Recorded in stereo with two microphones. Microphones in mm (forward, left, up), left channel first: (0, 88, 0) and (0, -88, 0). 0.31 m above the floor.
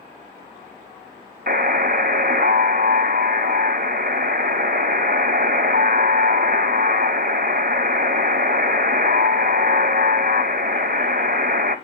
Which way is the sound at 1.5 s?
60° right (ahead or behind).